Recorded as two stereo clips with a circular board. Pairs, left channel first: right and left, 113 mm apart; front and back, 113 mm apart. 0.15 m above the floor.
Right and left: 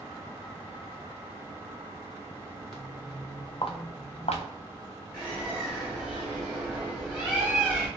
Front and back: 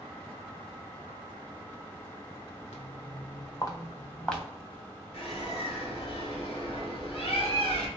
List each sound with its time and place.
2.7 s footsteps: 5° right, 0.8 m; by 4.4 s 90° right, 1.0 m
5.1 s a bird: 15° left, 1.8 m